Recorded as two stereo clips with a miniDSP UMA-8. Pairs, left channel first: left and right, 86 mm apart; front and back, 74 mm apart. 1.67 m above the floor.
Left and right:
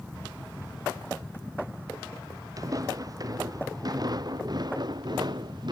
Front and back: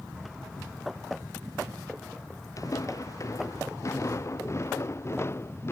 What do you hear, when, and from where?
2.6 s footsteps: 40° right; by 5.7 s 55° right